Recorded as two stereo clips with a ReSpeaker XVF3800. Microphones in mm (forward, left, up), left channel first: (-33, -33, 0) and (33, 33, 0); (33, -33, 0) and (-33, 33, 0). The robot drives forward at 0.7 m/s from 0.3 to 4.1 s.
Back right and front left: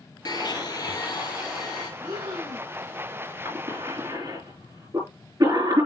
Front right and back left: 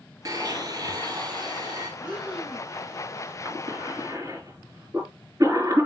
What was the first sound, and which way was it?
A blender, 175° right.